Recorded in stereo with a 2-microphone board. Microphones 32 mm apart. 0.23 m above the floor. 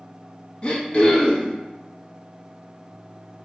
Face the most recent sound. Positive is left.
turn(degrees=35)  # may be behind; listen again after turning